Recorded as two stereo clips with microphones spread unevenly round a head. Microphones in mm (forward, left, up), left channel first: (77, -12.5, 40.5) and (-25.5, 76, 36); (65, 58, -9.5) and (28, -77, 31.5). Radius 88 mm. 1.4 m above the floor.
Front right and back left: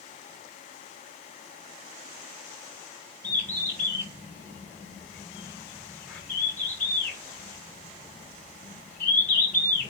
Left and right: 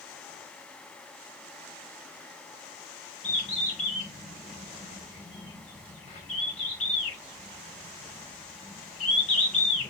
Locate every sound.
3.2 s a bird: 35° left, 6 m